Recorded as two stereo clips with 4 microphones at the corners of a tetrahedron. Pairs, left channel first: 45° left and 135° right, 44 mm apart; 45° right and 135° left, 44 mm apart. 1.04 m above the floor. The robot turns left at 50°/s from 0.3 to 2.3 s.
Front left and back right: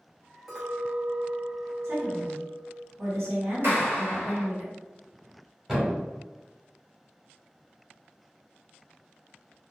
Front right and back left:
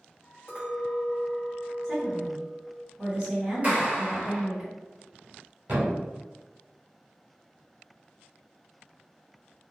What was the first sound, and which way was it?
A clink, 55° right.